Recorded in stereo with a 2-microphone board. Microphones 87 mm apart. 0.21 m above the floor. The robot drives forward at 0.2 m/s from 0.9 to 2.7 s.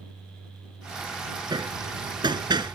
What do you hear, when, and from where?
1.5 s hammering: 60° right (ahead or behind)